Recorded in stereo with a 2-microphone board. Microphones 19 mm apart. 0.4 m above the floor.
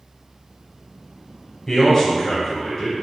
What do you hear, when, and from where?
1.7 s a man speaking: 20° left (ahead or behind), 1.4 m